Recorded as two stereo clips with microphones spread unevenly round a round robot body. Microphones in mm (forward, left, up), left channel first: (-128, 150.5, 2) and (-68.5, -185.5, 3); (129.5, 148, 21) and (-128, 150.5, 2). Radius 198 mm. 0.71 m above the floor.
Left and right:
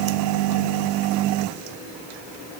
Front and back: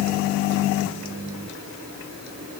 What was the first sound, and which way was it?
Only background noise.